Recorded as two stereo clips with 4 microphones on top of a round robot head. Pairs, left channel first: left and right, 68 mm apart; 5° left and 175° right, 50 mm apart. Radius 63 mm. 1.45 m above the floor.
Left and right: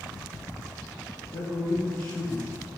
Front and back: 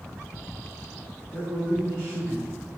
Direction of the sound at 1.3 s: 140° left.